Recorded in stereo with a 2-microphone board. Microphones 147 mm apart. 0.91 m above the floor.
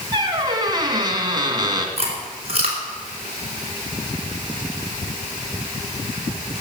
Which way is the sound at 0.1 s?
30° right (ahead or behind).